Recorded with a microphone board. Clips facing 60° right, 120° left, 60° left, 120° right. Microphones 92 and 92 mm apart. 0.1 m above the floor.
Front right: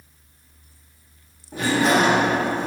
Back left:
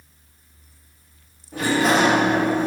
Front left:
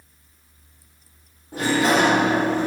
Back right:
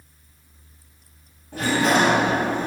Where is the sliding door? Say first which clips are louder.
Even, front left 1 dB; 10° left, 2.0 m.